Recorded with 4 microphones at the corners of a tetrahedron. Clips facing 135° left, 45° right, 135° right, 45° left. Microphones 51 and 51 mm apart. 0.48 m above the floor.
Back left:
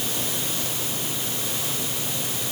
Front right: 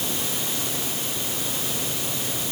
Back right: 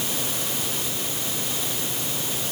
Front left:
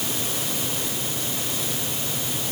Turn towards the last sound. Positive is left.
No sound to turn to.